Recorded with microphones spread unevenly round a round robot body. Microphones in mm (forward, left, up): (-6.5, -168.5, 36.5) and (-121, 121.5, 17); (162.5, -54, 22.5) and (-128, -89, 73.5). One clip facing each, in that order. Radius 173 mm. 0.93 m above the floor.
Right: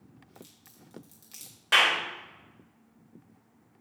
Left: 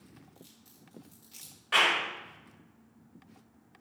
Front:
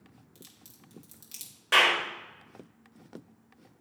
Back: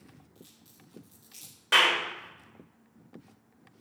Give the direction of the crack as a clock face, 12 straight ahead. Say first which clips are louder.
Right 3 dB, even; 12 o'clock.